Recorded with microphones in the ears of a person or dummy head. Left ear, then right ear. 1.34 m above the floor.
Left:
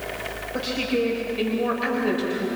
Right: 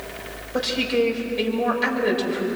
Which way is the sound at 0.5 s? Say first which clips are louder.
Right 4 dB; 20° right (ahead or behind).